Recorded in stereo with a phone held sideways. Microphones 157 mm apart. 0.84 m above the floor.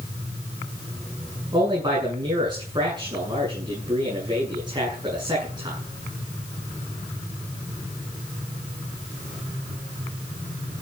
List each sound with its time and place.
1.5 s a man speaking: 30° right (ahead or behind), 8 m